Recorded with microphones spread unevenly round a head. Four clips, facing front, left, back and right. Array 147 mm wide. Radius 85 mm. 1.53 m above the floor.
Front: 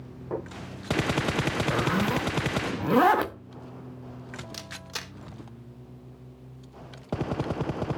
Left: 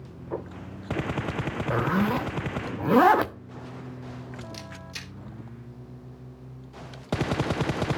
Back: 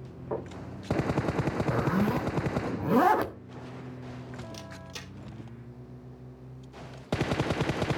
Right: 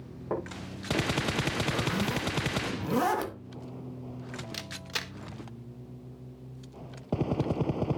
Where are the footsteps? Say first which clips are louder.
Right 1 dB, front 1 dB; 95° right, 6.5 m.